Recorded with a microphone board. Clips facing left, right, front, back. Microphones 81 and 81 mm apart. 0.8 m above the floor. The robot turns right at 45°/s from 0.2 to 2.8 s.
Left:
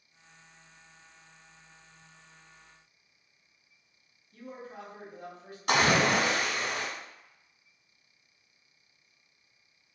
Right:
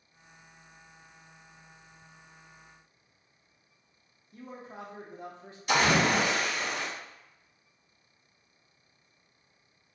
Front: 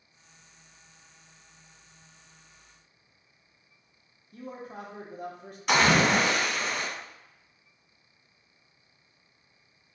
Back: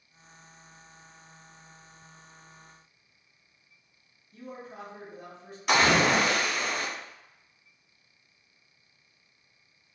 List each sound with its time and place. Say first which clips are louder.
4.3 s a man speaking: even, front 2 dB; 30° right, 0.8 m
5.7 s a splash: even, even; 90° left, 1.2 m